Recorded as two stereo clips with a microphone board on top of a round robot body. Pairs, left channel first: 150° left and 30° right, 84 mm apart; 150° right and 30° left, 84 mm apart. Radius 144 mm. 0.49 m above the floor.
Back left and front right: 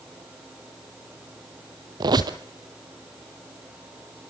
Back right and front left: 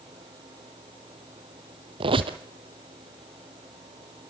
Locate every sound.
2.0 s a squeak: 15° left, 1.0 m